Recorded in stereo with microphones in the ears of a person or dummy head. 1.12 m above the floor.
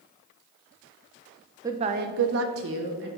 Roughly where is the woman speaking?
Centre.